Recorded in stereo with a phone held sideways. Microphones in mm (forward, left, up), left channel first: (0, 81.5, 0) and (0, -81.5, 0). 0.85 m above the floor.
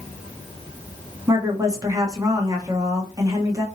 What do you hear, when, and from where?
1.3 s a woman speaking: 20° right (ahead or behind), 1.1 m